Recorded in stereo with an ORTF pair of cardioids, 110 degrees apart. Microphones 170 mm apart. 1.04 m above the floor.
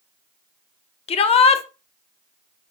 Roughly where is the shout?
Ahead left.